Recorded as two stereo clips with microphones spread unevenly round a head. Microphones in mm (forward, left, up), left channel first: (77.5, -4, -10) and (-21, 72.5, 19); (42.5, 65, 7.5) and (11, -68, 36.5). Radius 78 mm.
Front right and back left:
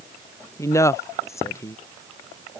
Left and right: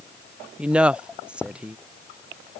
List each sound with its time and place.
0.6 s a woman speaking: 10° right